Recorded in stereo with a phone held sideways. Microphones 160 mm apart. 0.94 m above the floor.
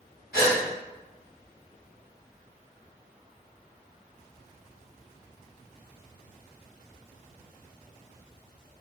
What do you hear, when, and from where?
0.3 s a gasp: 75° left (ahead or behind), 1.5 m